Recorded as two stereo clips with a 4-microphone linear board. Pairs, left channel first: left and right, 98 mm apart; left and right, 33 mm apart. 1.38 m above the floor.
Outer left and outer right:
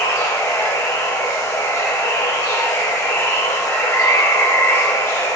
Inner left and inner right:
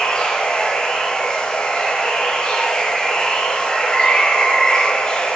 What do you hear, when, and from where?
0.0 s running water: 30° left (ahead or behind), 0.9 m